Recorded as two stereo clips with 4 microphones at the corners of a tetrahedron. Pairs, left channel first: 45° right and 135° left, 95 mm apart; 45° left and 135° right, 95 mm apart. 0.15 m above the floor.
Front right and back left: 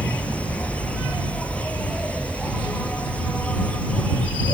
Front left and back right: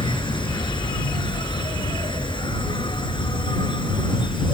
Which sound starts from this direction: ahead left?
An insect, at 0.0 s.